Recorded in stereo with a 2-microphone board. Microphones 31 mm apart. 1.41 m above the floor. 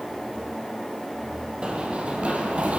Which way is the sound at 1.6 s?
35° right (ahead or behind).